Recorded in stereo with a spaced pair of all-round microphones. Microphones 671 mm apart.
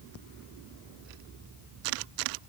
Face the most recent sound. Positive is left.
No sound to turn to.